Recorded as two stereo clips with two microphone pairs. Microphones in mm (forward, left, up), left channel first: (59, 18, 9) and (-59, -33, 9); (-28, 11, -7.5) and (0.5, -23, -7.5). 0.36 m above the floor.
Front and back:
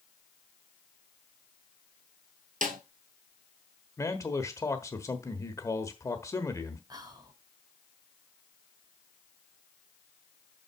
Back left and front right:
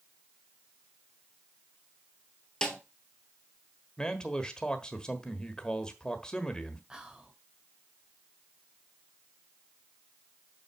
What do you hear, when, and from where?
2.6 s a snare drum: 155° right, 1.2 m
4.0 s a man speaking: 70° left, 1.3 m
6.9 s whispering: 120° right, 1.8 m